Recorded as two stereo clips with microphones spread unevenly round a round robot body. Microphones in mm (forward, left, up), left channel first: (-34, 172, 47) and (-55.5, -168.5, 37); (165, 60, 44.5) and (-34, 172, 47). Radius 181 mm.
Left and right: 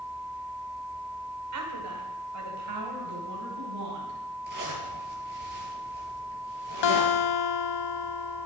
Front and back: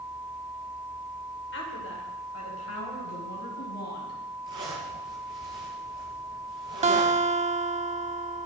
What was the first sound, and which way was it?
A woman speaking, 60° right.